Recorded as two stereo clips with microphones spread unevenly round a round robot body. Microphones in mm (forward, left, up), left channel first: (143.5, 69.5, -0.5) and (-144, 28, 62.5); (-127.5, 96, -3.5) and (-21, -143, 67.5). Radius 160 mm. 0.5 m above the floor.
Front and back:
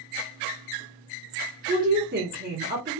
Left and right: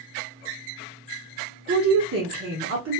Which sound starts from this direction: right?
A woman speaking, at 1.7 s.